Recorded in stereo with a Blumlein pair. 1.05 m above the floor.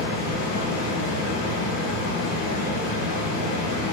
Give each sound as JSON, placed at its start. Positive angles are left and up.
{"t": 0.0, "sound": "a fan", "azimuth_deg": 45, "distance_m": 1.0}